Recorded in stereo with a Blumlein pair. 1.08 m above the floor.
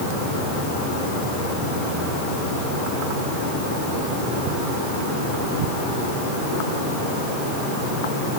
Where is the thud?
No thud in this recording.